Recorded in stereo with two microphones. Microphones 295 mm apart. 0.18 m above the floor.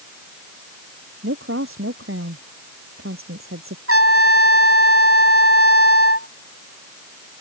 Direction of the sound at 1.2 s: 45° right (ahead or behind).